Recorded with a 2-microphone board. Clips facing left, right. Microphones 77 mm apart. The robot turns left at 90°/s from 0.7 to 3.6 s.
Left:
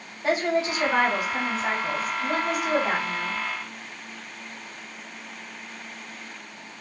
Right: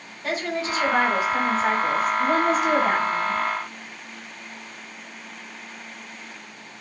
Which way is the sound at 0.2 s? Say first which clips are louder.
Left 3 dB; 25° left.